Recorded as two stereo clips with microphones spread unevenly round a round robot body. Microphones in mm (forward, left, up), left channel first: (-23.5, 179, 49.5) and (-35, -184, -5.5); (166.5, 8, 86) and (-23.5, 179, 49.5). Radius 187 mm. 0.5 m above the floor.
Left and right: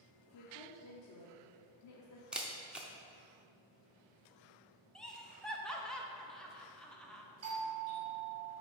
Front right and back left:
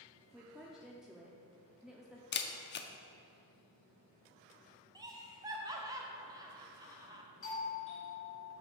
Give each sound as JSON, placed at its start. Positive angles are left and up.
{"t": 0.3, "sound": "a woman speaking", "azimuth_deg": 60, "distance_m": 0.8}
{"t": 2.3, "sound": "a camera shutter", "azimuth_deg": -20, "distance_m": 0.6}
{"t": 5.0, "sound": "laughter", "azimuth_deg": -170, "distance_m": 0.7}
{"t": 7.4, "sound": "a doorbell", "azimuth_deg": -70, "distance_m": 1.8}